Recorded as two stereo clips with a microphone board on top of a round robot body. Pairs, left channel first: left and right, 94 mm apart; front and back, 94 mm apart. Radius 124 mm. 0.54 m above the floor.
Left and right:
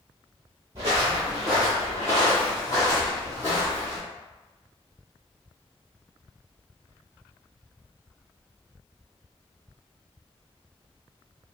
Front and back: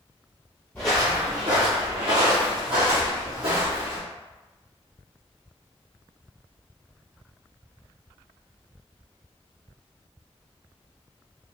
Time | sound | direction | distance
0.8 | footsteps | 70° right | 0.5 m